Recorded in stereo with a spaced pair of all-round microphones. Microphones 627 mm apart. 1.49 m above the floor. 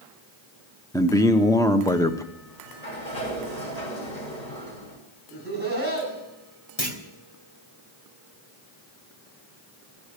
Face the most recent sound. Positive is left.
turn(degrees=45)  # may be behind; listen again after turning